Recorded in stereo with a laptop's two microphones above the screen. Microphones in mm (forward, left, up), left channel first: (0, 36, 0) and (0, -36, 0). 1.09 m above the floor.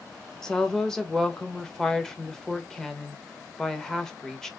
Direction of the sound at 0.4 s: 5° left (ahead or behind).